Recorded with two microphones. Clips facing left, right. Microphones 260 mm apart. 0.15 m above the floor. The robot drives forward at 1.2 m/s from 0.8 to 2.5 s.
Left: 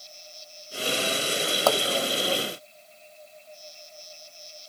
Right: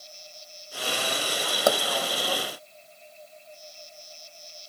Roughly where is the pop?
Centre.